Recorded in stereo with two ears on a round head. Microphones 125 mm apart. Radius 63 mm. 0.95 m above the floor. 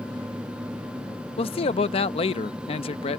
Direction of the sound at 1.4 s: 40° left (ahead or behind).